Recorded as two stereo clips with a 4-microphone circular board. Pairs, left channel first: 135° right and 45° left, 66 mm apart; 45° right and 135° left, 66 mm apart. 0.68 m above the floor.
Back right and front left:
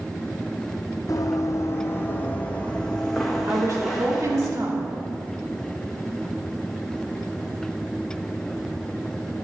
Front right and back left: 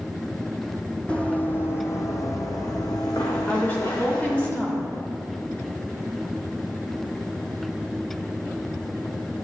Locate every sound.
1.1 s running footsteps: 115° right, 1.4 m; by 4.5 s 40° right, 3 m
3.5 s a woman speaking: 15° left, 2.5 m